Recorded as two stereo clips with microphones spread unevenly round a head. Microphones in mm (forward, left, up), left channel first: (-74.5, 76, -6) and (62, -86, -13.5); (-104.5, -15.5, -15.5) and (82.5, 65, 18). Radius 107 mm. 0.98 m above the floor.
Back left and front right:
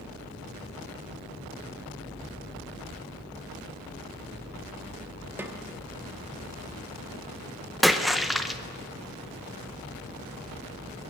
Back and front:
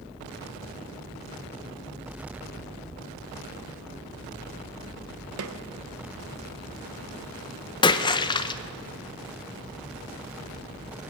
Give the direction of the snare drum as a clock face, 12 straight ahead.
11 o'clock.